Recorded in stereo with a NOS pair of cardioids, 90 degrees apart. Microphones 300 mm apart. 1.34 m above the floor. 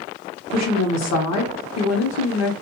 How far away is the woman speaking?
About 0.9 m.